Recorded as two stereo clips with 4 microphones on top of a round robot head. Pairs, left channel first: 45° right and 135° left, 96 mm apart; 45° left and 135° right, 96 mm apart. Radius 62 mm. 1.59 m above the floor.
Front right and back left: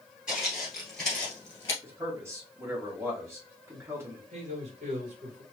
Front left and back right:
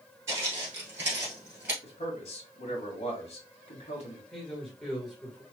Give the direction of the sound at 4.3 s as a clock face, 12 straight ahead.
8 o'clock.